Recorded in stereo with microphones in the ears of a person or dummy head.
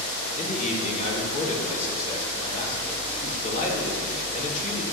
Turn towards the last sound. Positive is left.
turn(degrees=45)  # may be behind; listen again after turning